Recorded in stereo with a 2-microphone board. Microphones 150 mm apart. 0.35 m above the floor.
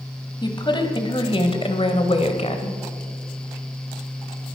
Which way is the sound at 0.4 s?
30° left (ahead or behind).